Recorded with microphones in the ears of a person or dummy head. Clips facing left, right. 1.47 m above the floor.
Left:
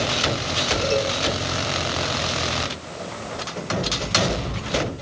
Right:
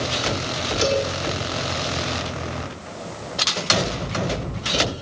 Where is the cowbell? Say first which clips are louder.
Right 2 dB; 75° right (ahead or behind), 7.5 m.